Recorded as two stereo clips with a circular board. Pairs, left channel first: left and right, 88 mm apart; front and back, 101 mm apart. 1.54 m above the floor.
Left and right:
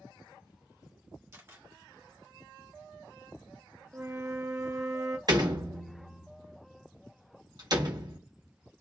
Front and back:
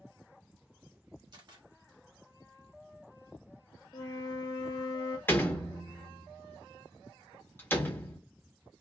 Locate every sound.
1.3 s a camera shutter: 150° right, 1.6 m
3.9 s a flute: 45° right, 1.3 m
5.3 s a door slam: 65° right, 1.4 m